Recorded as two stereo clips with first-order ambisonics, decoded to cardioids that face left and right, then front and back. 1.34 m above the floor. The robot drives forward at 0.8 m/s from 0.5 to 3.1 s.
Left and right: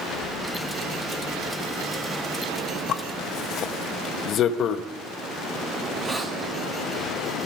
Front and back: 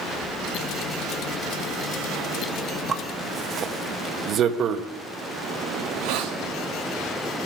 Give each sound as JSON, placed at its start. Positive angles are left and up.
{"t": 2.9, "sound": "a zipper", "azimuth_deg": 120, "distance_m": 0.7}
{"t": 5.8, "sound": "a hiss", "azimuth_deg": -170, "distance_m": 1.4}